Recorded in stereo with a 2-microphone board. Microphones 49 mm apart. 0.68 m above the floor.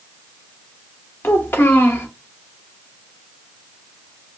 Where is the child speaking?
50° left (ahead or behind), 1.1 m.